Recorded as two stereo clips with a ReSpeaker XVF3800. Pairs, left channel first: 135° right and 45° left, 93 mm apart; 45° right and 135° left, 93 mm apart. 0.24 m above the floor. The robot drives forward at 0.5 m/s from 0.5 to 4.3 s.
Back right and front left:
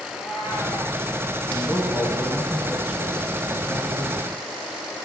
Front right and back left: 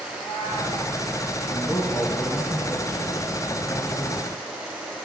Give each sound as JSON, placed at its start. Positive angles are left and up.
{"t": 0.1, "sound": "a cat meowing", "azimuth_deg": -30, "distance_m": 5.5}
{"t": 1.5, "sound": "a man speaking", "azimuth_deg": -15, "distance_m": 2.0}